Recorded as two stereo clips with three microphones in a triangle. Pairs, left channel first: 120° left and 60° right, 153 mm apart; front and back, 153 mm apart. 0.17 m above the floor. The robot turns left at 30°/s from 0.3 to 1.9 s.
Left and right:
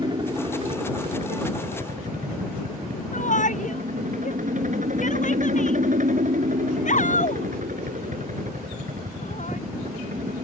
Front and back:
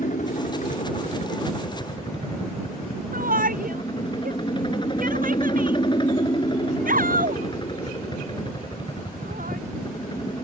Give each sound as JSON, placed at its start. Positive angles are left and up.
{"t": 0.0, "sound": "a helicopter", "azimuth_deg": -5}
{"t": 3.1, "sound": "a shout", "azimuth_deg": 155}